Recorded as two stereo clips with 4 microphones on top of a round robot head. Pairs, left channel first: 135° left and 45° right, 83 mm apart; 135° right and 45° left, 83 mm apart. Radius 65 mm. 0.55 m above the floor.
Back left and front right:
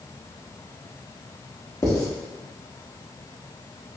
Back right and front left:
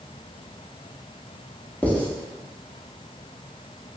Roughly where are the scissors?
No scissors in this recording.